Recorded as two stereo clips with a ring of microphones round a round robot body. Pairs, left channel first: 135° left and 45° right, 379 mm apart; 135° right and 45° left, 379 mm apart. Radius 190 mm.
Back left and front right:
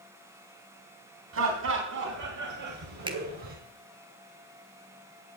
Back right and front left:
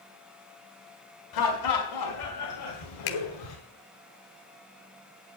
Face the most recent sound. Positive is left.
turn(degrees=-120)